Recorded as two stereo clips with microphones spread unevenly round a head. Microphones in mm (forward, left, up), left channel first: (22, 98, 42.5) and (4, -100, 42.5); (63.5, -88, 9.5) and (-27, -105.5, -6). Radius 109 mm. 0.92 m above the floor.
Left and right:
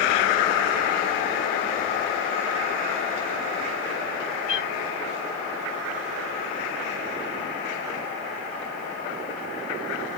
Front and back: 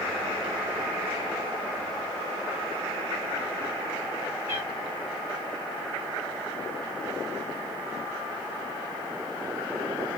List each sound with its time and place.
4.5 s a cat meowing: 110° left, 3 m